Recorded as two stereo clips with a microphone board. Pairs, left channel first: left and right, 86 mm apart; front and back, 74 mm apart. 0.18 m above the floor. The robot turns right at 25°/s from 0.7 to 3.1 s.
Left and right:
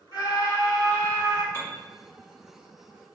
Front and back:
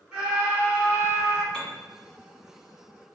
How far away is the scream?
About 2.0 m.